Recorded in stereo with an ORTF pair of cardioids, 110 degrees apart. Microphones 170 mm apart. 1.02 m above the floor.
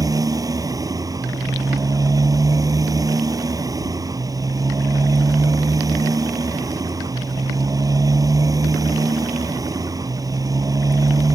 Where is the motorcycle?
20° right.